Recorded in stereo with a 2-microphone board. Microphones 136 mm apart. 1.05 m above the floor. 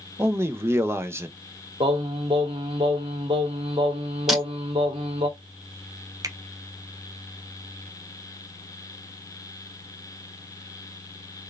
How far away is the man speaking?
About 0.7 m.